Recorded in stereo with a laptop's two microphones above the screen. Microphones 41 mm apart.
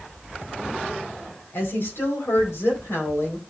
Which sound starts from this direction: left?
A woman speaking, at 1.5 s.